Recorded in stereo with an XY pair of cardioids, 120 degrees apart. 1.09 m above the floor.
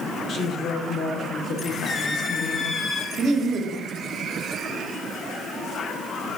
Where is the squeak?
35° left, 0.9 m.